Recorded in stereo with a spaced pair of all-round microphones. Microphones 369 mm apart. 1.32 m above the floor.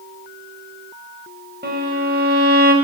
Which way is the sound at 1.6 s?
25° right (ahead or behind).